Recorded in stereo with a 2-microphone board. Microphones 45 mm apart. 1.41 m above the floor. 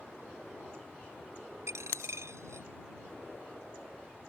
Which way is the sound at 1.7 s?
80° right.